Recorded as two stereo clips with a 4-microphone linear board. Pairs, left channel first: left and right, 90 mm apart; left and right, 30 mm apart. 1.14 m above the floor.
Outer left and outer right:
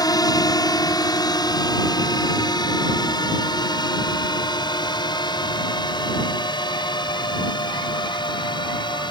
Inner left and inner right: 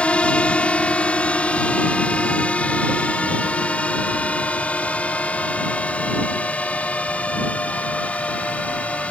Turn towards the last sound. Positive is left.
turn(degrees=55)  # may be behind; listen again after turning